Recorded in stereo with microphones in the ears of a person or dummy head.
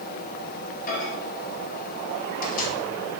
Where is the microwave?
50° left (ahead or behind), 7 m.